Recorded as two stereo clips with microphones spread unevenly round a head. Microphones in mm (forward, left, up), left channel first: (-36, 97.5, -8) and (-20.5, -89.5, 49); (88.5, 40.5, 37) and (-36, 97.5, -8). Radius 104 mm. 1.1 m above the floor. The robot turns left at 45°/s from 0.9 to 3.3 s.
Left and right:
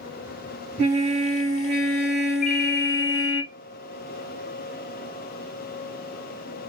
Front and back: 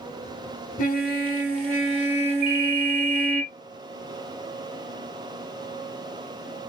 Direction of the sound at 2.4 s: 150° left.